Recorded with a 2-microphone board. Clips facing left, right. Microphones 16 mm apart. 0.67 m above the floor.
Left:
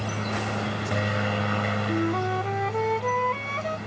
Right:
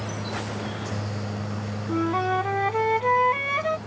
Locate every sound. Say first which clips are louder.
0.0 s a helicopter: left 2 dB; 60° left (ahead or behind)
1.9 s a flute: right 7 dB; 20° right (ahead or behind)